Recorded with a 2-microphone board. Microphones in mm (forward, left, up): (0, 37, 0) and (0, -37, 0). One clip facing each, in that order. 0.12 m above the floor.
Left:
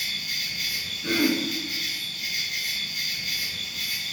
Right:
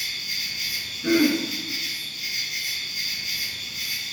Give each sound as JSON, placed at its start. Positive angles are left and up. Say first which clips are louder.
{"t": 0.0, "sound": "an insect", "louder": "even", "side_deg": 55, "distance_m": 1.1}
{"t": 1.0, "sound": "throat clearing", "louder": "right 4 dB", "side_deg": -20, "distance_m": 0.8}